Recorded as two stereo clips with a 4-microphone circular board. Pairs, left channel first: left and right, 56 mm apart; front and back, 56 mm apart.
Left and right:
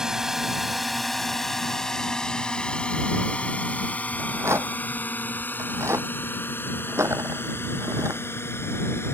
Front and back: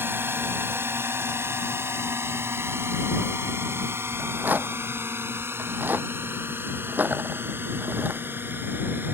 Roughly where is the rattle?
Behind right.